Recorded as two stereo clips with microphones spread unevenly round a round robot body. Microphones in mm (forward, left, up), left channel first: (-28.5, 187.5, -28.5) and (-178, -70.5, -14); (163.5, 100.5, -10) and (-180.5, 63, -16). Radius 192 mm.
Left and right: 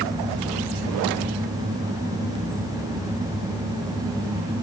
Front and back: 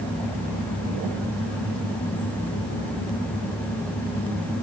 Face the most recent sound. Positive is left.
No sound to turn to.